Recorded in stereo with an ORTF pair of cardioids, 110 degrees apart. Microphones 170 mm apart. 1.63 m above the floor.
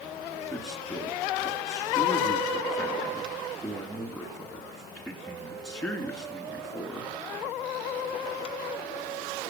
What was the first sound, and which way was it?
A man speaking, 15° left.